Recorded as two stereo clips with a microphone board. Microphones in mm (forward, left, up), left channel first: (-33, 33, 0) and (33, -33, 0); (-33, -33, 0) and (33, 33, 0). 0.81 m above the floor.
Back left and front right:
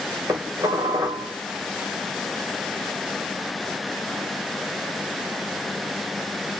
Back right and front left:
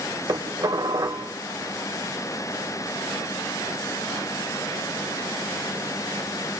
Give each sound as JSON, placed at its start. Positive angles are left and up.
{"t": 0.3, "sound": "dishes clattering", "azimuth_deg": 0, "distance_m": 2.5}